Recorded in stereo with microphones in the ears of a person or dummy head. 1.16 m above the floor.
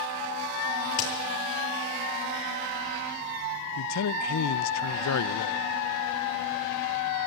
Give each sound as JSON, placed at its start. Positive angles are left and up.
{"t": 0.9, "sound": "a crack", "side_deg": 45, "distance_m": 8.0}
{"t": 3.8, "sound": "a man speaking", "side_deg": 80, "distance_m": 0.6}